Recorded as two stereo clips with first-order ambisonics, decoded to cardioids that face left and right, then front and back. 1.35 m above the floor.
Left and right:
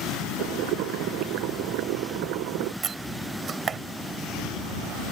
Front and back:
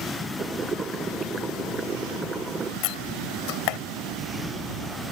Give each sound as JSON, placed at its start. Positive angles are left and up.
{"t": 0.4, "sound": "boiling", "azimuth_deg": -110}
{"t": 2.8, "sound": "a door slam", "azimuth_deg": -25}